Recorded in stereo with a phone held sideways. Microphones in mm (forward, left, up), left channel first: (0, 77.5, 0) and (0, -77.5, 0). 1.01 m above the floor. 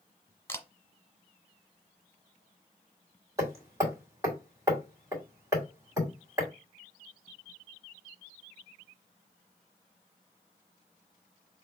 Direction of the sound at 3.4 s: 20° right (ahead or behind).